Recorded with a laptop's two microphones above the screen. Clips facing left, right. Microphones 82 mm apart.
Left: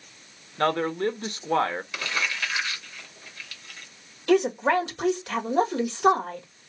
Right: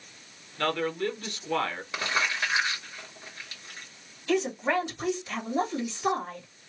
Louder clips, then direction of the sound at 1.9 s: Right 1 dB; 30° right (ahead or behind).